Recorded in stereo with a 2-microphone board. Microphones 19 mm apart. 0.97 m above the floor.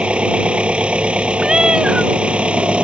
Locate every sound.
0.0 s an engine running: 70° right (ahead or behind)
1.4 s a cat meowing: 45° right (ahead or behind)